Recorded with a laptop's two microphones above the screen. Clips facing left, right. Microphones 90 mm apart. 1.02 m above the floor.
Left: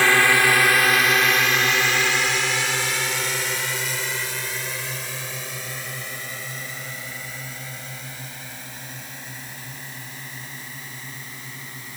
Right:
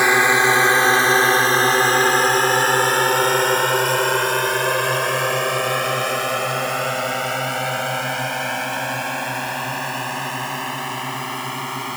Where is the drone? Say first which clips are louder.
Right 3 dB; 20° right (ahead or behind); by 12.0 s 80° right.